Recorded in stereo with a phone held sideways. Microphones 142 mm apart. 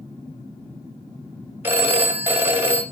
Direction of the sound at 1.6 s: 15° right (ahead or behind).